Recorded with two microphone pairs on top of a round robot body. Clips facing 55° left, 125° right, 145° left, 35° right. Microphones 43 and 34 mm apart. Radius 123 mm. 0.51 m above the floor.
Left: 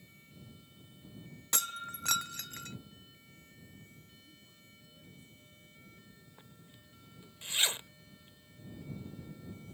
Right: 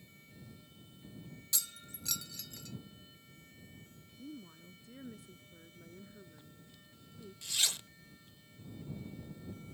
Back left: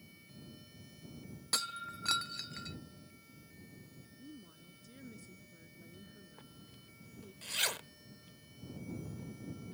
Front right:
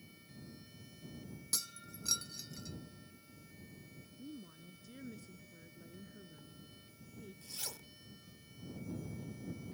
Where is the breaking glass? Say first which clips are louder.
Left 8 dB, back left 8 dB; 95° left.